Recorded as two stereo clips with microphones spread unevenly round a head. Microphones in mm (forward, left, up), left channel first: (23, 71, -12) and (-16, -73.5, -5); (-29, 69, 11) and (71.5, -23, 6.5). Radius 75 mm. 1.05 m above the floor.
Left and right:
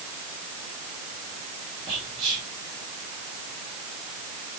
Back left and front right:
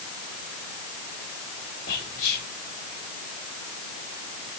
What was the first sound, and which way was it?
Whispering, 170° right.